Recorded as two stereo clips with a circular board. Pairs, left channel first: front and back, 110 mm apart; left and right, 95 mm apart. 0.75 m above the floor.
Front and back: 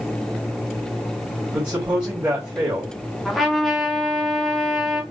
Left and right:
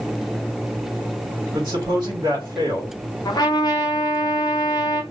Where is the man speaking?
120° right, 1.5 m.